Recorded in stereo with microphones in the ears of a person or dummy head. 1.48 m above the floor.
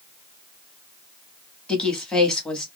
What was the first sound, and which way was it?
A woman speaking, 10° left (ahead or behind).